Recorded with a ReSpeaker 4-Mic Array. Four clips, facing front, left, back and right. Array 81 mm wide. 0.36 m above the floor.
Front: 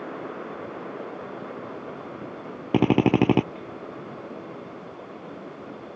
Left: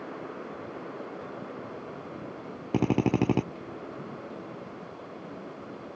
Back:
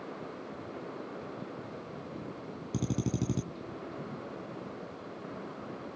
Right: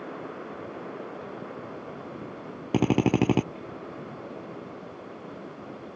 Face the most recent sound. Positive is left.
turn(degrees=-10)